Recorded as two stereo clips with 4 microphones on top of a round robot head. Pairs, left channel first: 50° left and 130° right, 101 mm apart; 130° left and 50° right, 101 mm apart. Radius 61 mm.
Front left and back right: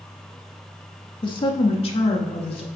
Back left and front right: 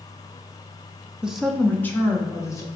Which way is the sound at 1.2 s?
30° left.